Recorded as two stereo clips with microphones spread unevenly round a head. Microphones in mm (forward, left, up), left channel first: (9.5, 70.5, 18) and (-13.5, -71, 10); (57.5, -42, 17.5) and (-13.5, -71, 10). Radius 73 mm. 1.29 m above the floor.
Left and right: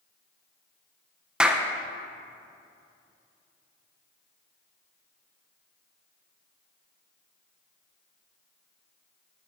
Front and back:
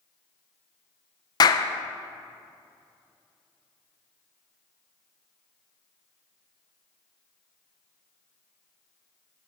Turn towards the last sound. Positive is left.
turn(degrees=-15)